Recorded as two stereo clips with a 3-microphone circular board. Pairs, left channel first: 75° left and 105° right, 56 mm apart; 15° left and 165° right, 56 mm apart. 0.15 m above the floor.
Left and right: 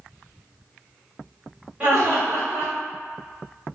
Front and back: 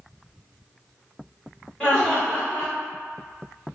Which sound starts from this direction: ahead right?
Laughter, at 1.8 s.